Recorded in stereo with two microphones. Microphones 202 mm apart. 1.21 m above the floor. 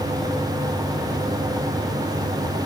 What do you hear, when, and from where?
Only background noise.